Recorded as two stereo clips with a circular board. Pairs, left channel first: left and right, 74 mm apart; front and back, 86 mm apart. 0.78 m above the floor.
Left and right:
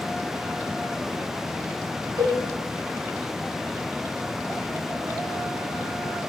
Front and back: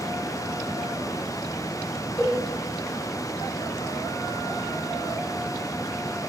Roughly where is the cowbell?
Right.